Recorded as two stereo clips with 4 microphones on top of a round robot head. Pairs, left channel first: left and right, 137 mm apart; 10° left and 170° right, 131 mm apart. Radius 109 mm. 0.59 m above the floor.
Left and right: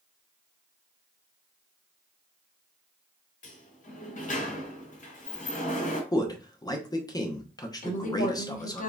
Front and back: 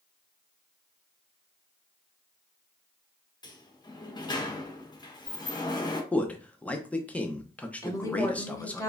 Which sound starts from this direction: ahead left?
A sliding door, at 3.4 s.